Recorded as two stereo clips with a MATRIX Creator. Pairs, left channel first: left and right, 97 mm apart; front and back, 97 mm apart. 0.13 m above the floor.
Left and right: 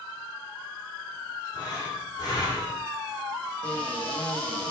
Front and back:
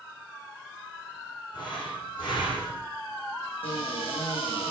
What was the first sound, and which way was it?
Breathing, 40° left.